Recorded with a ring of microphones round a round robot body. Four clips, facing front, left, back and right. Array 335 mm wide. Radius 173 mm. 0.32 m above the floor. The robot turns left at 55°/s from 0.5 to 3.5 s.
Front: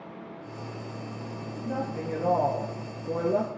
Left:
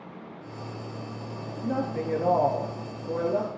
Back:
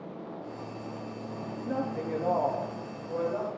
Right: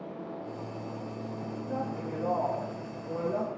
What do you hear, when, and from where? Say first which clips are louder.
1.6 s a woman speaking: left 7 dB, even; 110° left, 5.5 m; by 3.6 s 5° left, 5.5 m